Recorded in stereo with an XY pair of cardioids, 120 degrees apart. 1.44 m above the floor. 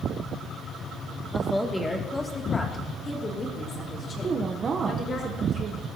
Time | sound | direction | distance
1.3 | a woman speaking | straight ahead | 2 m
4.2 | a woman speaking | 35° right | 0.9 m